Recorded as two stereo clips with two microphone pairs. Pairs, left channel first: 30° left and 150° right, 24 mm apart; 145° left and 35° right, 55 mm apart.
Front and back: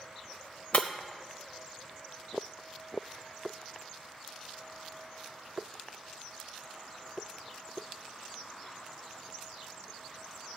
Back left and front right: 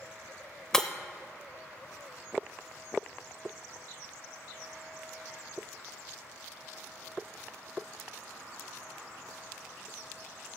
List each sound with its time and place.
0.7 s breaking glass: 70° left, 0.6 m